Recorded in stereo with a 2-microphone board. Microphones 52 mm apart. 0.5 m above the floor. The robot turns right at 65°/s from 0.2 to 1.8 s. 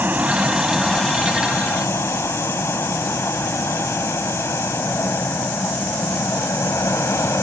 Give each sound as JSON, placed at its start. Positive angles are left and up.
{"t": 0.0, "sound": "an aircraft", "side_deg": -35}